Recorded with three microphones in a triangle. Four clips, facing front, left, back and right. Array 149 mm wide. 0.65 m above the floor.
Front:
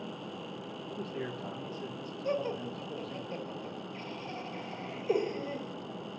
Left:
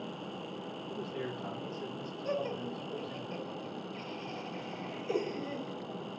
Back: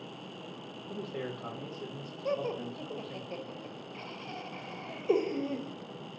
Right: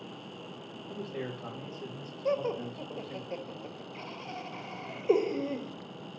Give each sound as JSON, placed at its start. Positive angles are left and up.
{"t": 0.9, "sound": "a man speaking", "azimuth_deg": -165, "distance_m": 4.0}
{"t": 2.2, "sound": "laughter", "azimuth_deg": -115, "distance_m": 1.6}